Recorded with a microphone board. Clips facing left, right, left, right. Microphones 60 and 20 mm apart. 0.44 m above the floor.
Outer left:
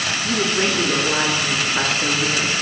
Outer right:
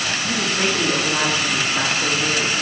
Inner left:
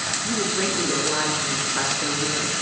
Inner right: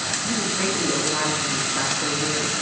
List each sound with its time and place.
0.2 s a woman speaking: 45° left (ahead or behind), 4.5 m; by 2.5 s 25° left (ahead or behind), 4.5 m